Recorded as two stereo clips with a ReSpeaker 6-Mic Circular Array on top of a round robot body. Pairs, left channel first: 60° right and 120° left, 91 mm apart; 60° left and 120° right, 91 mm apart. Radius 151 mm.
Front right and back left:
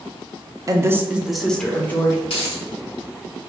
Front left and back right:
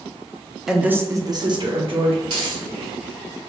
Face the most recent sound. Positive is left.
turn(degrees=-85)